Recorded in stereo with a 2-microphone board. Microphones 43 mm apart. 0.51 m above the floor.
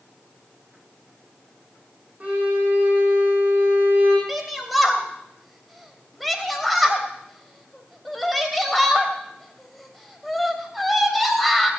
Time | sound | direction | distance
2.2 | a violin | 40° right (ahead or behind) | 6 m
4.3 | a shout | centre (ahead or behind) | 3 m